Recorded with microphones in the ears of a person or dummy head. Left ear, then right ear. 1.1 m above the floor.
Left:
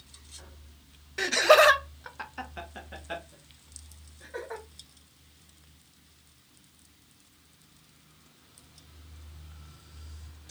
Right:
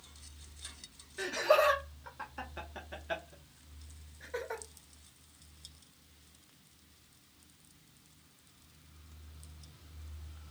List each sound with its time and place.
1.2 s laughter: 70° left (ahead or behind), 0.6 m; by 4.6 s 25° right (ahead or behind), 1.6 m